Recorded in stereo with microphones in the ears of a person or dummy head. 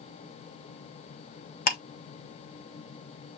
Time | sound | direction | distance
1.7 | ticking | 50° left (ahead or behind) | 1.3 m